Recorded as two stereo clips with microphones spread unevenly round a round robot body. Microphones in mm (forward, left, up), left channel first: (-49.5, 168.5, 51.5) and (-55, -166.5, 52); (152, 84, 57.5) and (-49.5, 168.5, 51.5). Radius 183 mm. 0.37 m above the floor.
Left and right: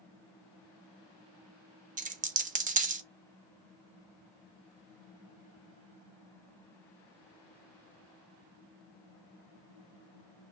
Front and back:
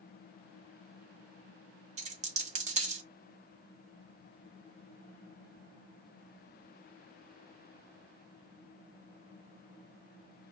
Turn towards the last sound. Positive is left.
turn(degrees=-155)